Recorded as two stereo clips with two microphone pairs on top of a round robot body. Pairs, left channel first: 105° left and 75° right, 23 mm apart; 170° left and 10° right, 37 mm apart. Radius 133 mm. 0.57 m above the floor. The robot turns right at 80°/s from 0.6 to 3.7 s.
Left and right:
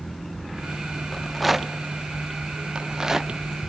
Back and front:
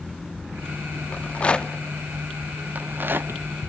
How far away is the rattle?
About 1.1 m.